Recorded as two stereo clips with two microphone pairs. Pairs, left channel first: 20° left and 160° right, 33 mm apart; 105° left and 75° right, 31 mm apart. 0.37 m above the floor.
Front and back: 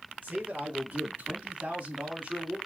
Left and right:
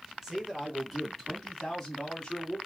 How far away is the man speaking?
About 3 m.